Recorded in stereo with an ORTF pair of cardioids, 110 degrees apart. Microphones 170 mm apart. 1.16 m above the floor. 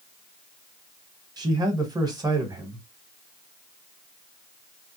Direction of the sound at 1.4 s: 25° right.